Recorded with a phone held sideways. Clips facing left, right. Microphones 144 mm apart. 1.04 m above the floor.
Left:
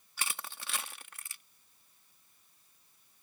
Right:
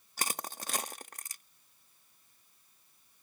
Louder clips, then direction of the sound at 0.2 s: Right 4 dB; 40° right (ahead or behind).